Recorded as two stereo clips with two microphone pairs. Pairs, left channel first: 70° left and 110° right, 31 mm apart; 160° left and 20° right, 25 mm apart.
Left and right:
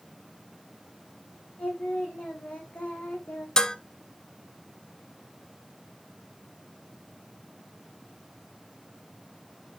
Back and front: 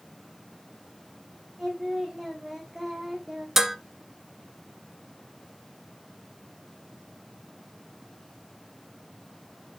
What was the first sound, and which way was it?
Singing, 50° left.